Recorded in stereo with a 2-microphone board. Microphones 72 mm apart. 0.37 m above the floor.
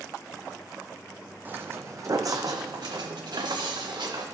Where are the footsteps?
25° right (ahead or behind), 0.7 m; by 4.2 s 80° right, 1.8 m.